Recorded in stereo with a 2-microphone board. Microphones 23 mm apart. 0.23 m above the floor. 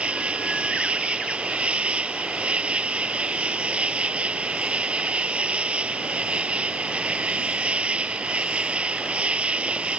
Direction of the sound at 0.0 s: 70° right (ahead or behind).